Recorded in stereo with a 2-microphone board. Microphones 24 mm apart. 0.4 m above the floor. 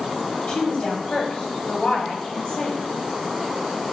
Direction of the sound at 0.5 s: 45° left (ahead or behind).